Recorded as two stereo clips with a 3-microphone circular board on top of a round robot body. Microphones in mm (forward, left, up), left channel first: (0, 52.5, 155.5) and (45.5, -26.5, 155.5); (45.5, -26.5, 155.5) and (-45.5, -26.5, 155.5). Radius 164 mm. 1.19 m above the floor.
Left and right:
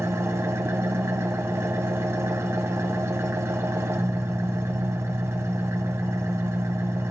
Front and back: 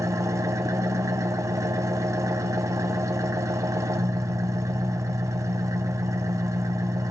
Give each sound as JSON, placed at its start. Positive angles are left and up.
{"t": 0.0, "sound": "an engine running", "azimuth_deg": -120, "distance_m": 0.7}